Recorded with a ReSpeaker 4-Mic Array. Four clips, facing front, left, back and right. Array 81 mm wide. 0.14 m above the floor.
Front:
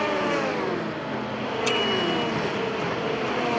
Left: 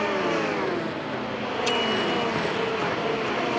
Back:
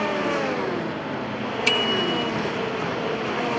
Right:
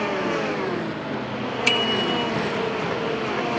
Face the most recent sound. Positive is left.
turn(degrees=-120)